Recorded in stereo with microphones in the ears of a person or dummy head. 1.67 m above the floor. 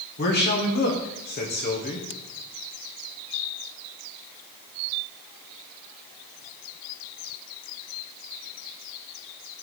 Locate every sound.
0.2 s a man speaking: 50° left (ahead or behind), 1.1 m